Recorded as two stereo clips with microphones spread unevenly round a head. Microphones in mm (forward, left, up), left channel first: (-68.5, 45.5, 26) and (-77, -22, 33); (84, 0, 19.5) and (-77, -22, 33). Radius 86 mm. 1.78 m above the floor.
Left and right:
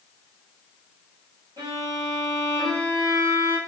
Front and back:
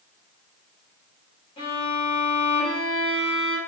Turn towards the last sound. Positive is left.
turn(degrees=-55)